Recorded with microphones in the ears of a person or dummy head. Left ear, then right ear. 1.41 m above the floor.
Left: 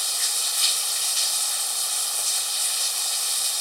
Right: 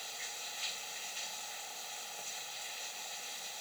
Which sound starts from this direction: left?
Running water, at 0.0 s.